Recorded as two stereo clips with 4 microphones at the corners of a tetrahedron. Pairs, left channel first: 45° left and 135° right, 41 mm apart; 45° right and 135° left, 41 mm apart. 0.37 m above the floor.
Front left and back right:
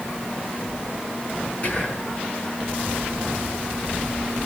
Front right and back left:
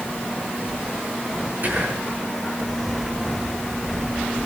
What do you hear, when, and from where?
1.6 s whispering: 100° left, 4.5 m